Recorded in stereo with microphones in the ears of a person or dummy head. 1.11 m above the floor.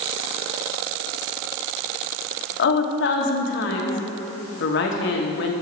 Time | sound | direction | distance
2.6 | a woman speaking | 60° left (ahead or behind) | 1.3 m